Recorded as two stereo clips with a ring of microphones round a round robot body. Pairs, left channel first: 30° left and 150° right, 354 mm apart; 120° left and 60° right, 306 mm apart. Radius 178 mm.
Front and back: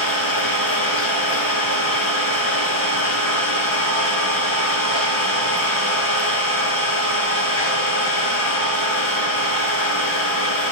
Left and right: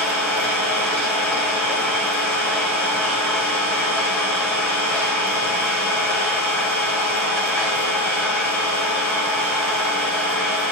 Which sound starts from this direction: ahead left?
An engine running, at 0.0 s.